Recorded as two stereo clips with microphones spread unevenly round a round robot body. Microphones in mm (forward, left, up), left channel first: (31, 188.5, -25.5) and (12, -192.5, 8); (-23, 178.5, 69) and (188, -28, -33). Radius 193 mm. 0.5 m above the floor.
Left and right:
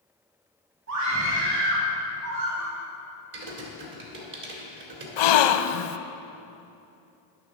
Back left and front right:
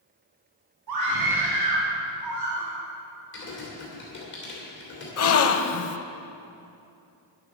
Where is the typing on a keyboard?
155° right, 1.9 m.